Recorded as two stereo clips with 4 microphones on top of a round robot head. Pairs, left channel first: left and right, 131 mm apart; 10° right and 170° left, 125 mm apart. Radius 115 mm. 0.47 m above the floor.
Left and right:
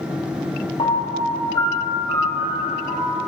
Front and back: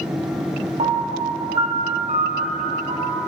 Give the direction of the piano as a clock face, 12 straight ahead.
7 o'clock.